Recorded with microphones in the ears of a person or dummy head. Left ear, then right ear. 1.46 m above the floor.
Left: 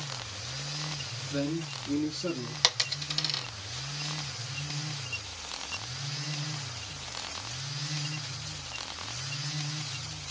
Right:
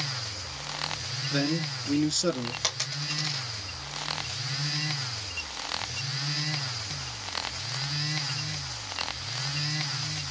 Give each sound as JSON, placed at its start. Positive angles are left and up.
{"t": 1.3, "sound": "a man speaking", "side_deg": -60, "distance_m": 2.5}
{"t": 2.6, "sound": "a dropped coin", "side_deg": 20, "distance_m": 1.4}